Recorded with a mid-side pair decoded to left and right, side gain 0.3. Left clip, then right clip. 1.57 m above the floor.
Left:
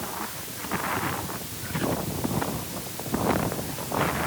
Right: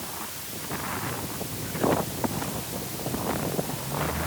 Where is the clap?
No clap in this recording.